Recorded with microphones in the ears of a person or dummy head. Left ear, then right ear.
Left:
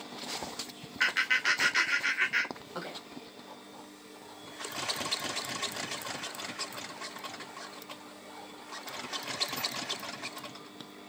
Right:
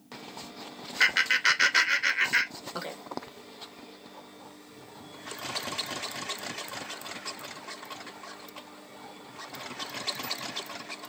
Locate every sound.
1.0 s laughter: 20° right (ahead or behind), 0.8 m